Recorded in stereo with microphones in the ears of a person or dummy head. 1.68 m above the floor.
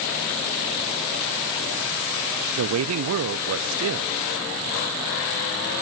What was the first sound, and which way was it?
A man speaking, 75° right (ahead or behind).